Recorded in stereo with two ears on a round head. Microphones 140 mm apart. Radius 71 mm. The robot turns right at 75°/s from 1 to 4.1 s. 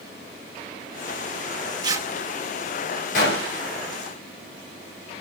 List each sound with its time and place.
1.8 s tearing paper: 30° right (ahead or behind), 1.0 m; by 2.1 s 15° right (ahead or behind), 1.0 m
3.1 s a gunshot: 60° left, 5 m; by 3.6 s 95° left, 5 m